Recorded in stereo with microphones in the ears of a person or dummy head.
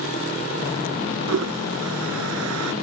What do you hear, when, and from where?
1.3 s a toilet flushing: 85° right